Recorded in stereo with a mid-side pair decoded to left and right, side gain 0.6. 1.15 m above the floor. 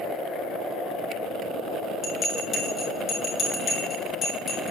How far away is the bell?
About 4.5 m.